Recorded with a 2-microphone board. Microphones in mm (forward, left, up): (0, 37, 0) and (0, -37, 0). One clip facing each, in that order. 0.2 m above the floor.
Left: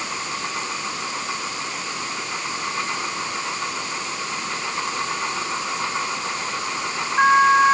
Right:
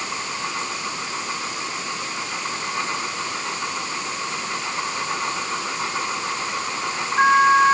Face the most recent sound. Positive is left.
No sound to turn to.